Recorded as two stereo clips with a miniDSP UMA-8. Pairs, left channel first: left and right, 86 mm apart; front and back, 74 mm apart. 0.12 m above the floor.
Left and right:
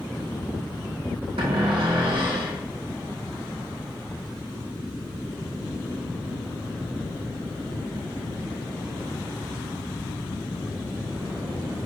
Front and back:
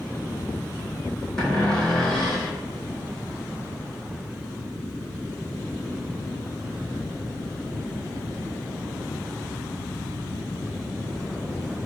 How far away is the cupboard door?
About 2.5 m.